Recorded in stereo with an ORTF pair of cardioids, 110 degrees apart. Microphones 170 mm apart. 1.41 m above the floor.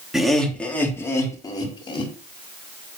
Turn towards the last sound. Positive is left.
turn(degrees=30)